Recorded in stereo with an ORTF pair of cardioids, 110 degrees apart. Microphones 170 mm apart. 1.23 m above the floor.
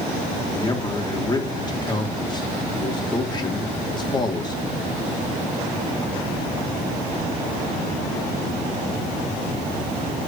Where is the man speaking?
25° left, 3.5 m.